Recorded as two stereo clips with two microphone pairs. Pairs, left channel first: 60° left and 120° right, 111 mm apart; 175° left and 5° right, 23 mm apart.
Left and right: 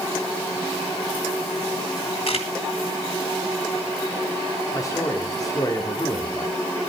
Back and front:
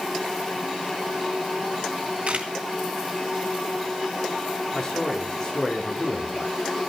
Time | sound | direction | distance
2.3 | a camera shutter | 35° left | 3 m
4.7 | a man speaking | 120° left | 3.5 m